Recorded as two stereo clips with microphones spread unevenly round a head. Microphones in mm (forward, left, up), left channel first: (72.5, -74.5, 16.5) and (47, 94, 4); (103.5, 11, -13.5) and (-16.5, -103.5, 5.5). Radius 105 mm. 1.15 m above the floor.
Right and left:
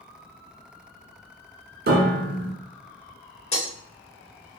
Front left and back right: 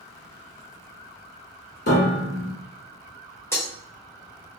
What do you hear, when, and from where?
1.9 s a piano: 80° left, 1.3 m
3.5 s breaking glass: 30° right, 2.0 m